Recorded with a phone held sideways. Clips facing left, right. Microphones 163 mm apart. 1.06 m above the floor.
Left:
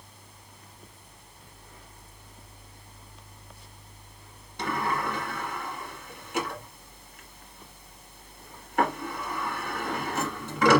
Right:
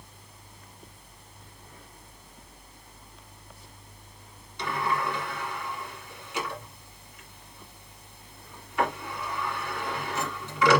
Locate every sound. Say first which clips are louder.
4.6 s a sliding door: even; 55° left (ahead or behind), 1.5 m